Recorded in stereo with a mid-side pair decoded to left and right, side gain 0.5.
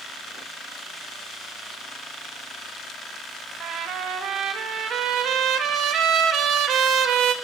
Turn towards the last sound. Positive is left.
turn(degrees=-65)